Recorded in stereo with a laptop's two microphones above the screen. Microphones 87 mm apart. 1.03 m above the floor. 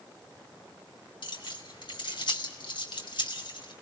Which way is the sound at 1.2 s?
65° left (ahead or behind).